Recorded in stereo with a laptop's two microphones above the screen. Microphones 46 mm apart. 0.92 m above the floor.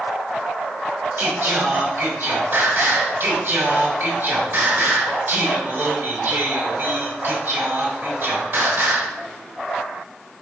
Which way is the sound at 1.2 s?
55° right (ahead or behind).